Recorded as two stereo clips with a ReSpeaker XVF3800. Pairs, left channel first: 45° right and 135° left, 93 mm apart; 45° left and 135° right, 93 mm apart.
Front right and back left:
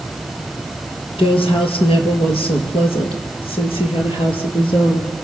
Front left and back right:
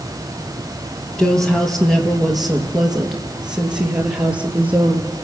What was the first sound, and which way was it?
A woman speaking, 35° right.